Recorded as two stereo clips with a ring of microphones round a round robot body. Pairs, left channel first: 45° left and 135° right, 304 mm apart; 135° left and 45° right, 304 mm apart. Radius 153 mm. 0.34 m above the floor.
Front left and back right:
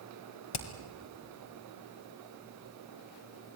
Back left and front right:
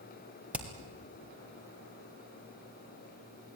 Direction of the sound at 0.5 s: 40° left.